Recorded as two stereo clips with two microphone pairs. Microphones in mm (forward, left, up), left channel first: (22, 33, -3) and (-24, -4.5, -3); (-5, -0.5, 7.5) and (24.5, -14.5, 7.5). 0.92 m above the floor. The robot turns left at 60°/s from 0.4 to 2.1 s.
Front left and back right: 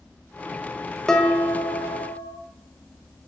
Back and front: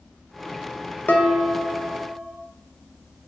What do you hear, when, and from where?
1.1 s dishes clattering: 120° left, 1.3 m; by 2.4 s 60° left, 1.3 m